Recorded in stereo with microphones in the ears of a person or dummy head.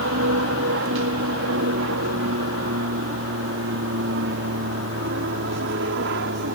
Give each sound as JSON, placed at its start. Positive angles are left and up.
{"t": 0.0, "sound": "an aircraft", "side_deg": -65}